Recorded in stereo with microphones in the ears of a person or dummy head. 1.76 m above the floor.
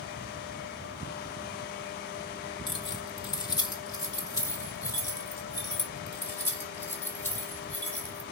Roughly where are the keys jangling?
Left.